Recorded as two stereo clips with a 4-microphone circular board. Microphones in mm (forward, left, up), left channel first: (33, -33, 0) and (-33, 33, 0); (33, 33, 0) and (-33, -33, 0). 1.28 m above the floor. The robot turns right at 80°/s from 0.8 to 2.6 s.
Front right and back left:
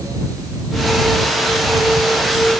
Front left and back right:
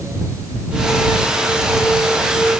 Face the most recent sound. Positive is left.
No sound to turn to.